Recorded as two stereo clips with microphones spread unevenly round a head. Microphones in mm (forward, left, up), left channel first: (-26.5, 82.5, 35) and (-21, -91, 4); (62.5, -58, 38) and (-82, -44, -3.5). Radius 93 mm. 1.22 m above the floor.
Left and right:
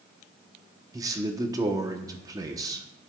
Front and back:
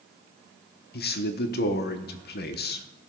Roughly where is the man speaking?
Ahead.